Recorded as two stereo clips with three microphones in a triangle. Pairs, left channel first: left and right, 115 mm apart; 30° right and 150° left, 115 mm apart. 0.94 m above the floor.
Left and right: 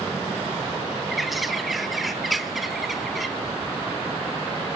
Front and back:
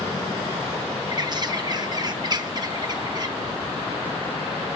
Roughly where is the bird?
Behind.